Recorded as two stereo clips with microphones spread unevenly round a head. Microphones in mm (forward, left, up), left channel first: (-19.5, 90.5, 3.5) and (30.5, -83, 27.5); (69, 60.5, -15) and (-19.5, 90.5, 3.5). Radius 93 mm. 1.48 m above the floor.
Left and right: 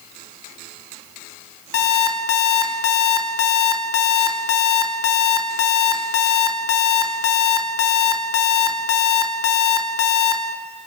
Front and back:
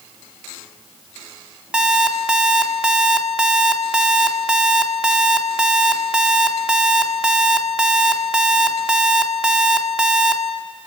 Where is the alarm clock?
85° left, 2.5 m.